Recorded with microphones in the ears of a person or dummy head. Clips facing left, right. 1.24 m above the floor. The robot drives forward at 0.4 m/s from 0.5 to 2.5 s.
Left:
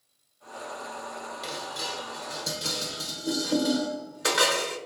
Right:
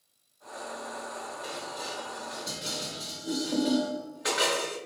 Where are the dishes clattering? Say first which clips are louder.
Left 1 dB; 70° left (ahead or behind), 0.6 m; by 4.8 s 60° left (ahead or behind), 0.7 m.